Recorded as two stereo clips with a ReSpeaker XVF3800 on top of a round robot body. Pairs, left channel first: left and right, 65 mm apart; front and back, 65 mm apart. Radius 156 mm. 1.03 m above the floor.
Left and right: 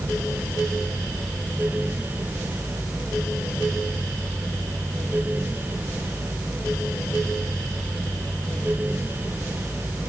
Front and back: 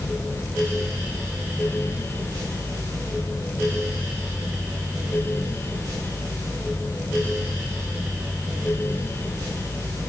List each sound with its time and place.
Only background noise.